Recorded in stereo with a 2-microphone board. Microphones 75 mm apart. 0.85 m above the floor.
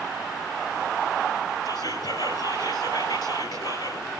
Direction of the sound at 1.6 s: 70° left (ahead or behind).